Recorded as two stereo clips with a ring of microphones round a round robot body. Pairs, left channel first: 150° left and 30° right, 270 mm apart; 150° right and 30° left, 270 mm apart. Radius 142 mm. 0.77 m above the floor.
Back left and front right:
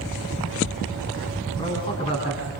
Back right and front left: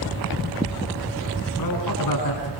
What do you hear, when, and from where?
1.6 s a man speaking: 140° right, 7.5 m